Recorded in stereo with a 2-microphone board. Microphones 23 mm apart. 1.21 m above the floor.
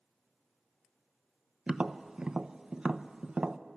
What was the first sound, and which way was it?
Tapping, 40° right (ahead or behind).